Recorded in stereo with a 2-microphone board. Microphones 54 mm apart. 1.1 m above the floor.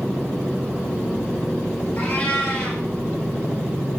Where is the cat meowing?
30° left (ahead or behind), 2 m.